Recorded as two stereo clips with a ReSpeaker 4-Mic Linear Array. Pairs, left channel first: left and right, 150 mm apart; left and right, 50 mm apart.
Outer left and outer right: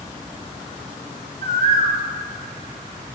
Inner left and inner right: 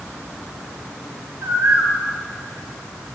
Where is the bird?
50° right (ahead or behind), 1.5 m.